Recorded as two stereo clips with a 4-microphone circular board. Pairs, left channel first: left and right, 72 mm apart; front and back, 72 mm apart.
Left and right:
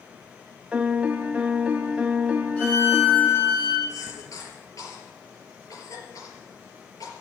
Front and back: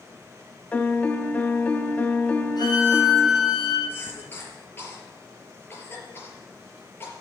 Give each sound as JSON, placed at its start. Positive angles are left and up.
{"t": 0.7, "sound": "a piano", "azimuth_deg": -40, "distance_m": 1.0}
{"t": 2.6, "sound": "a violin", "azimuth_deg": 20, "distance_m": 7.5}
{"t": 3.9, "sound": "a cough", "azimuth_deg": 60, "distance_m": 4.0}